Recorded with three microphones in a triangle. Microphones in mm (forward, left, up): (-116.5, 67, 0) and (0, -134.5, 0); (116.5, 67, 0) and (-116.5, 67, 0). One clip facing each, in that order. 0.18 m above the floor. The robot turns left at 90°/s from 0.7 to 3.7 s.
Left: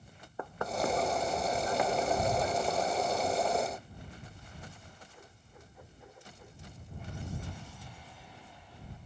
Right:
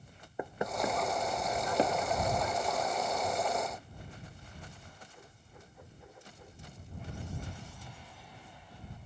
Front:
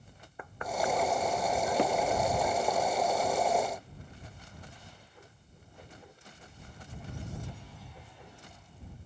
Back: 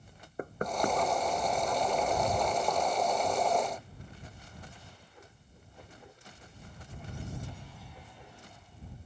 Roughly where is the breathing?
No breathing in this recording.